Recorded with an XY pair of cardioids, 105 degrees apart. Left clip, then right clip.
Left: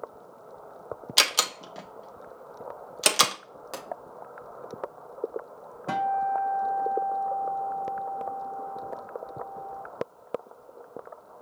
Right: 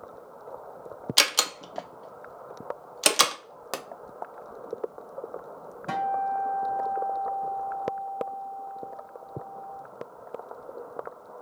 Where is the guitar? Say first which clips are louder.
Left 1 dB; straight ahead, 1.3 m.